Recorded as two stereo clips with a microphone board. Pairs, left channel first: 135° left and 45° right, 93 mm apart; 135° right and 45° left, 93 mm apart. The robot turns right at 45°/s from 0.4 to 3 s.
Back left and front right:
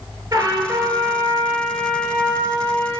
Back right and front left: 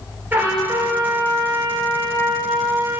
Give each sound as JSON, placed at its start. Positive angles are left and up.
{"t": 0.3, "sound": "a trumpet", "azimuth_deg": -15, "distance_m": 1.4}